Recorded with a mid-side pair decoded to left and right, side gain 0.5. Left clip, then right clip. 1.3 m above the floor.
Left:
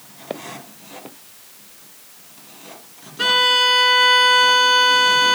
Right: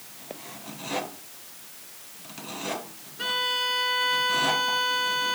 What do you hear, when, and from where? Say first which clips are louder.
0.3 s footsteps: left 9 dB; 60° left
3.2 s a violin: left 11 dB; 60° left